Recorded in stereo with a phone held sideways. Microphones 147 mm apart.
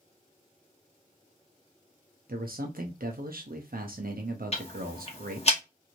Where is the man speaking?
85° right, 0.6 m.